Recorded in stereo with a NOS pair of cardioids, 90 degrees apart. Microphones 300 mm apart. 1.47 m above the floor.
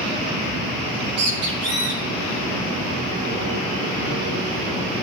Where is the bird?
55° right, 3.5 m.